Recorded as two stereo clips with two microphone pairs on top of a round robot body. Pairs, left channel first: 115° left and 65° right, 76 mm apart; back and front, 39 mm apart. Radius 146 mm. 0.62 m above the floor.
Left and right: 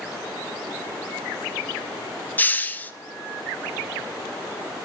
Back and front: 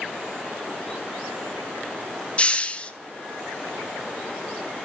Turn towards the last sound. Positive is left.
turn(degrees=130)